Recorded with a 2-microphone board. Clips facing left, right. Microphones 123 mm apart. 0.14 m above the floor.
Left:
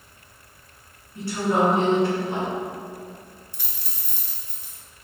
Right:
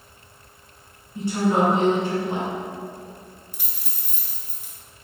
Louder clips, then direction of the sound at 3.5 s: Right 1 dB; 5° right (ahead or behind).